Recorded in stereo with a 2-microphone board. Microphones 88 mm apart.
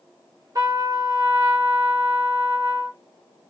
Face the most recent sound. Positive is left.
turn(degrees=-40)  # may be behind; listen again after turning